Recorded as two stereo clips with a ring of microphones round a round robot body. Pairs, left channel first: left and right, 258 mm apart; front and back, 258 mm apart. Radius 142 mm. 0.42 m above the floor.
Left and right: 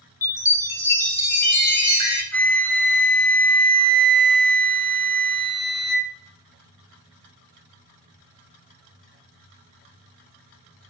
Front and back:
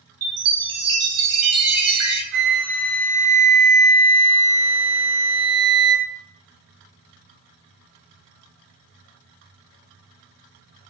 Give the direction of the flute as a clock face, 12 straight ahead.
6 o'clock.